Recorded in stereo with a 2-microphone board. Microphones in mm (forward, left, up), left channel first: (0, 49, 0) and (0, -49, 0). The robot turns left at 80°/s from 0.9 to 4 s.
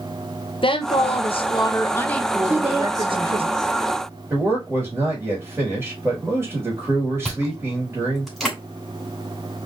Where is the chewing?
Centre (ahead or behind), 3 m.